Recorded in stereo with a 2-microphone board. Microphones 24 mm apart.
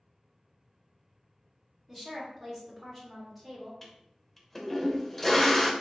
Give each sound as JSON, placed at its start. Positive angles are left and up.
{"t": 1.9, "sound": "a woman speaking", "side_deg": 0, "distance_m": 1.7}
{"t": 3.8, "sound": "a toilet flushing", "side_deg": 15, "distance_m": 0.6}